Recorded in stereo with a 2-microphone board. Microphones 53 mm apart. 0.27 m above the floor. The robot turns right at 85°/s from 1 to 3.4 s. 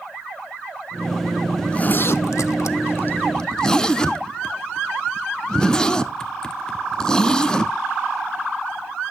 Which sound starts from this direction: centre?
A zipper, at 1.6 s.